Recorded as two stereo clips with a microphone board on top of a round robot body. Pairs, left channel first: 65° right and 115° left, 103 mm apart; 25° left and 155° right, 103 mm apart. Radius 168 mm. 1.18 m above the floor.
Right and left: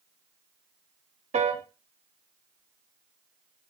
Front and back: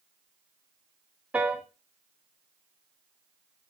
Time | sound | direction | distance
1.3 | a piano | 125° left | 0.6 m